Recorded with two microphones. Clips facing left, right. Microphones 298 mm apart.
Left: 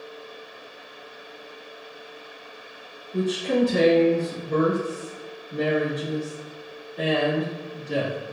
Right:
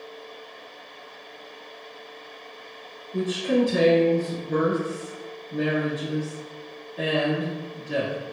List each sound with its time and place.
3.1 s a woman speaking: 5° right (ahead or behind), 1.1 m